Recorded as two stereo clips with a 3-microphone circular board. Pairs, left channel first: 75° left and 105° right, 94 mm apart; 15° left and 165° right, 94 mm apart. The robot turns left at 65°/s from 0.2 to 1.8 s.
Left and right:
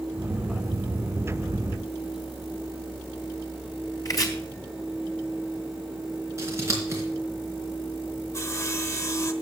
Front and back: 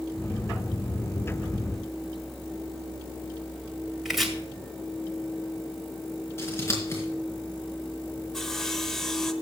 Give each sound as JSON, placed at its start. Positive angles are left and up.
{"t": 4.0, "sound": "chopping", "azimuth_deg": 105, "distance_m": 2.0}
{"t": 6.4, "sound": "scissors", "azimuth_deg": -45, "distance_m": 4.0}
{"t": 8.3, "sound": "sawing", "azimuth_deg": 95, "distance_m": 1.1}